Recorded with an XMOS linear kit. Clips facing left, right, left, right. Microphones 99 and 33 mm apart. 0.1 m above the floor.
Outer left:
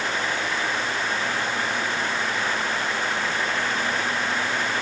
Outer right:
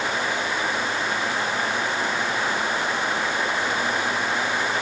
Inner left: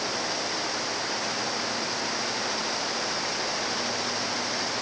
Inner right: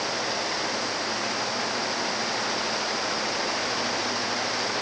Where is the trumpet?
I don't hear a trumpet.